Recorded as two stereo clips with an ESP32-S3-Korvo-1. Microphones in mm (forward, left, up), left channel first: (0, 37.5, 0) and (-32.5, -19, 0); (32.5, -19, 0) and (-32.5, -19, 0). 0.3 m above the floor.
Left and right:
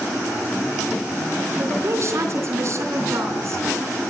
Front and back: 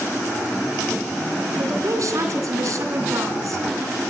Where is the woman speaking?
160° right, 4 m.